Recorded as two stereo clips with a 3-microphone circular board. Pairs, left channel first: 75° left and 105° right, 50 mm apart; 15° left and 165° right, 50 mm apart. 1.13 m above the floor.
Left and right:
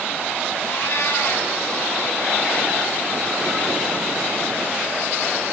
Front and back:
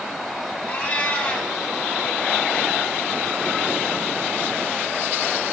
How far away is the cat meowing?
About 2 m.